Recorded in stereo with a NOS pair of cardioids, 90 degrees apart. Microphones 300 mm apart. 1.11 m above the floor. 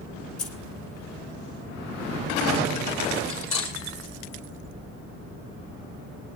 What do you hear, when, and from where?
0.4 s keys jangling: 50° left, 3.5 m
3.3 s cutlery clinking: 45° left, 5.5 m